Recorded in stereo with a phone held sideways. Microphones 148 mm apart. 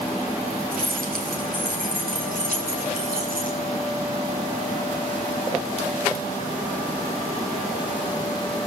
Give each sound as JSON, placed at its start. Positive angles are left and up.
{"t": 0.7, "sound": "keys jangling", "side_deg": -90, "distance_m": 6.5}